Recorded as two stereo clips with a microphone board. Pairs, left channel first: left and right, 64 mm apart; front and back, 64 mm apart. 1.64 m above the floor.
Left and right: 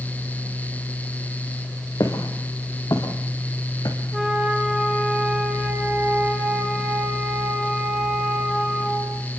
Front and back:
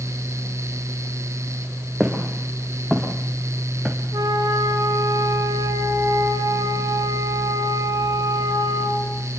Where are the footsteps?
100° left, 5.5 m; by 4.0 s 90° left, 4.5 m.